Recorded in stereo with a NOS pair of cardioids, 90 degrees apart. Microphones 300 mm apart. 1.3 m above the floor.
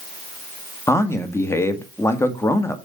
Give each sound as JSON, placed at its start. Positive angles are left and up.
{"t": 0.9, "sound": "a man speaking", "azimuth_deg": 10, "distance_m": 2.0}